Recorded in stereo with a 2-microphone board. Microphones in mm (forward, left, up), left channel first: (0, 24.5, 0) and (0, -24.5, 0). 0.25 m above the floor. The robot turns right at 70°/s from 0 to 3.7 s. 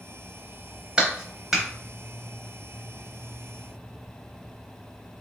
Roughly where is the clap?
Centre.